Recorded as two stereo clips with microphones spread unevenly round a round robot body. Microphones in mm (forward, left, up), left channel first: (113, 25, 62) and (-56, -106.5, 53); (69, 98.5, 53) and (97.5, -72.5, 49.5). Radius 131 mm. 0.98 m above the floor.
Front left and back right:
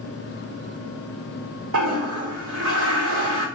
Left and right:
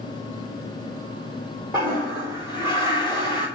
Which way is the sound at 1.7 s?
160° right.